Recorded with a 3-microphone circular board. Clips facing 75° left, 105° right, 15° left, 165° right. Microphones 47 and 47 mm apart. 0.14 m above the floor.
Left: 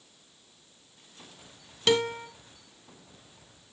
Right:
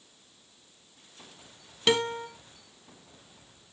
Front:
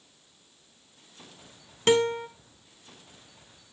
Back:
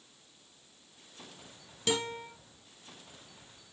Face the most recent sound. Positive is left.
turn(degrees=-25)